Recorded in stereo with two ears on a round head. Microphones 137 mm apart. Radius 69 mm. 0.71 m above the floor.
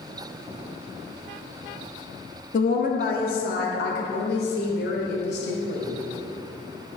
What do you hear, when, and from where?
2.5 s a woman speaking: 55° left (ahead or behind), 0.8 m; by 5.9 s 80° left, 2.5 m